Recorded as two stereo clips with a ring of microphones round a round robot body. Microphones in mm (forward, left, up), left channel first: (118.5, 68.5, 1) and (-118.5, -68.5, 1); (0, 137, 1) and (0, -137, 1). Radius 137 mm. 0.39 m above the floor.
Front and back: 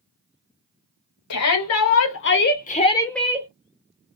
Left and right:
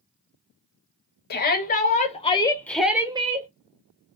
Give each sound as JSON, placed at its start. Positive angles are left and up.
{"t": 1.3, "sound": "a shout", "azimuth_deg": 40, "distance_m": 1.7}